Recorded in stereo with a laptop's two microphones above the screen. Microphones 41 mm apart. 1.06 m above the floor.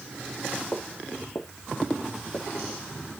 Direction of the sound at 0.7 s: 55° left (ahead or behind).